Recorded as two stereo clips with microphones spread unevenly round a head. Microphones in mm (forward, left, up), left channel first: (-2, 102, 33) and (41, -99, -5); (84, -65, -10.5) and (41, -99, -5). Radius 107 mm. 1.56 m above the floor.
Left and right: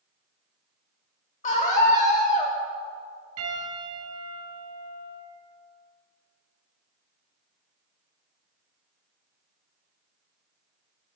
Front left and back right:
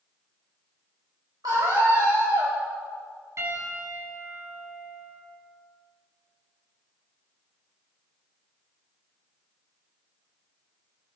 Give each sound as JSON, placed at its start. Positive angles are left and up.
{"t": 1.4, "sound": "a scream", "azimuth_deg": 160, "distance_m": 4.5}
{"t": 3.4, "sound": "a piano", "azimuth_deg": -105, "distance_m": 8.5}